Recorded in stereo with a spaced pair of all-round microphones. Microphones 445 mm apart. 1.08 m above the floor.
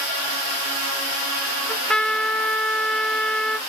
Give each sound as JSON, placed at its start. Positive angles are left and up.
{"t": 1.7, "sound": "a trumpet", "side_deg": 0, "distance_m": 0.6}